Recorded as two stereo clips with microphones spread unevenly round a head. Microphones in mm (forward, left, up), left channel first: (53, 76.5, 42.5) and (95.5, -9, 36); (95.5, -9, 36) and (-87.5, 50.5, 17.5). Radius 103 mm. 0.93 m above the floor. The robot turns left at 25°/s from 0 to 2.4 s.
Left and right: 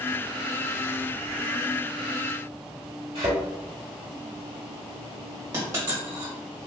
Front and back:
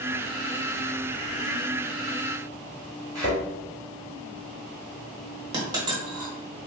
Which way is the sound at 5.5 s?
130° right.